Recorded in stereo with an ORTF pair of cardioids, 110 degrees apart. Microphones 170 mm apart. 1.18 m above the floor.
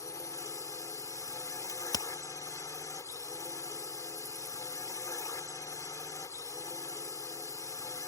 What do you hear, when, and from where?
0.0 s a drone: 20° left
1.7 s a crack: 20° left